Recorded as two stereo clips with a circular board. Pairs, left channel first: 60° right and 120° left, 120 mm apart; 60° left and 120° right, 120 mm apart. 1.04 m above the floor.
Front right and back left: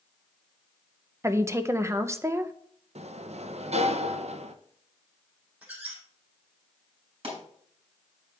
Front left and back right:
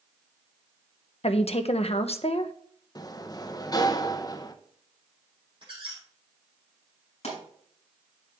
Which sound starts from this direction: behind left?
A sliding door, at 3.0 s.